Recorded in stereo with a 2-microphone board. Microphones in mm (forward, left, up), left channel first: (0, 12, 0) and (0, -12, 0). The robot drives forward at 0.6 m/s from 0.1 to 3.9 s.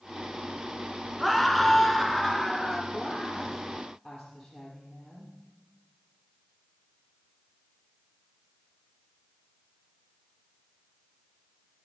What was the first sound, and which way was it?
A scream, centre (ahead or behind).